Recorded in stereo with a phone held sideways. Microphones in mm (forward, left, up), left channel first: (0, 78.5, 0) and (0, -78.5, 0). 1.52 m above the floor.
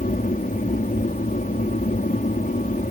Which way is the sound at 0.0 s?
60° left (ahead or behind).